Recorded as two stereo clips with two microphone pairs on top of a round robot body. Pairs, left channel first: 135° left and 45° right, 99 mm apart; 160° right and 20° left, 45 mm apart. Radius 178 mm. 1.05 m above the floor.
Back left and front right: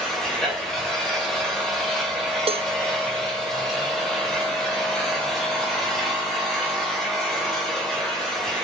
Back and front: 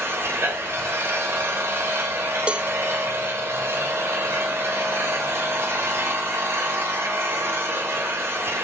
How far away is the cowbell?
About 0.5 m.